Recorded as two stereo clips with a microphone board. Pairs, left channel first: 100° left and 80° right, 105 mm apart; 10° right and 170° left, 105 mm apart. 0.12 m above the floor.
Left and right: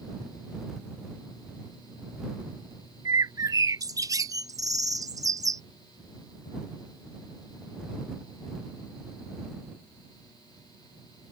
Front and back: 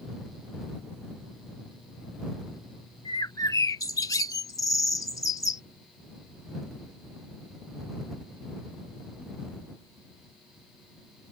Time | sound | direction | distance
3.0 | a bird | 50° right | ?